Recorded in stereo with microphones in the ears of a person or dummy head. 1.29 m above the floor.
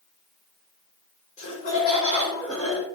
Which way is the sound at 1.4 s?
45° left (ahead or behind).